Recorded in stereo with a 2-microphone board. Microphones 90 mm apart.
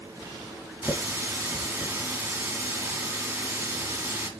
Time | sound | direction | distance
0.8 | a running tap | 20° right (ahead or behind) | 1.6 m